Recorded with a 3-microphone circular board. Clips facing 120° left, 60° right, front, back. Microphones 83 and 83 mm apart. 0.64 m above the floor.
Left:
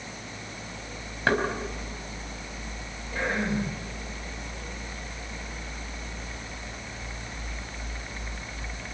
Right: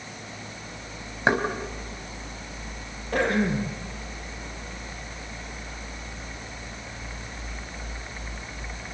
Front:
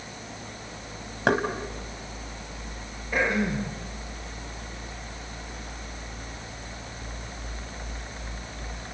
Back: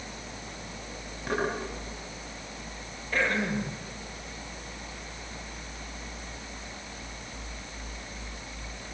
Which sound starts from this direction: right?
Throat clearing, at 3.1 s.